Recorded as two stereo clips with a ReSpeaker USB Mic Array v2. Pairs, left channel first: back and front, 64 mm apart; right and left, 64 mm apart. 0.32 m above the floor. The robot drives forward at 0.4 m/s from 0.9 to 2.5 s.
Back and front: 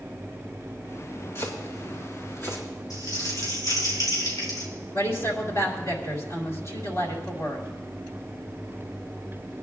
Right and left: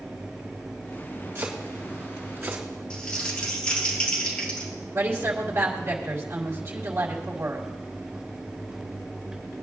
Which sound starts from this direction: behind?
Crumpling, at 2.9 s.